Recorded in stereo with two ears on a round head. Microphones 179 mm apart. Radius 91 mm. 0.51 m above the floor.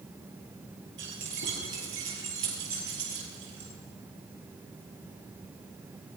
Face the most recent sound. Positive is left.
turn(degrees=-70)  # may be behind; listen again after turning